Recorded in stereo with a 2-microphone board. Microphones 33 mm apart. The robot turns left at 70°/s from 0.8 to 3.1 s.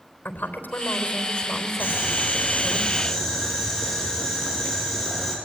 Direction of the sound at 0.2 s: 75° left.